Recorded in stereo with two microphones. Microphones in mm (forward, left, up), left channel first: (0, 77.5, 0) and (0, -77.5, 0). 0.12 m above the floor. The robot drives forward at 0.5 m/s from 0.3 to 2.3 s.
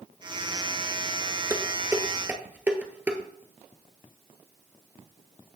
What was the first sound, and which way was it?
Dishes clattering, 15° right (ahead or behind).